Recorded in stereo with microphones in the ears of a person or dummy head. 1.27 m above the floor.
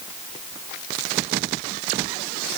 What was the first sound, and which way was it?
Only background noise.